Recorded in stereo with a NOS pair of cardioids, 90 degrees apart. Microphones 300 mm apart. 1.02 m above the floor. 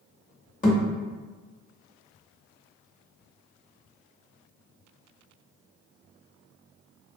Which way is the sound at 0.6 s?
30° left.